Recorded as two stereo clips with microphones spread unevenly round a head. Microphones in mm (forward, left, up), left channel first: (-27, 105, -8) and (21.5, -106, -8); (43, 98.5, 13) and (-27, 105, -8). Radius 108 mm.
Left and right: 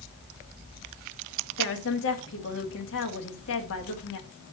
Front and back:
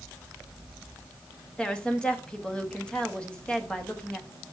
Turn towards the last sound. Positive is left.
turn(degrees=70)